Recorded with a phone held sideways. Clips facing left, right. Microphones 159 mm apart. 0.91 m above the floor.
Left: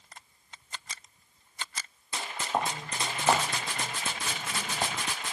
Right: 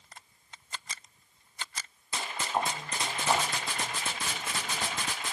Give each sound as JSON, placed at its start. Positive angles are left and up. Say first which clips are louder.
{"t": 2.5, "sound": "footsteps", "louder": "left 1 dB", "side_deg": 75, "distance_m": 3.5}